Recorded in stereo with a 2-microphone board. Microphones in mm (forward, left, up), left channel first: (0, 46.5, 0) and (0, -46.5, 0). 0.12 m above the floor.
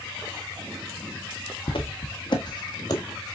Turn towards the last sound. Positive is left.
turn(degrees=45)  # may be behind; listen again after turning